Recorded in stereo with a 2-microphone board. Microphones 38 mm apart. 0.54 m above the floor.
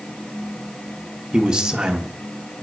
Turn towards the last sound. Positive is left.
turn(degrees=-20)  # may be behind; listen again after turning